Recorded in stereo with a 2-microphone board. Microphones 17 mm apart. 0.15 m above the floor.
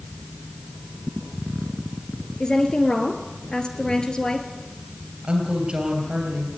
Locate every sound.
2.4 s a woman speaking: 45° left (ahead or behind), 2.5 m
5.2 s a woman speaking: 60° right (ahead or behind), 3 m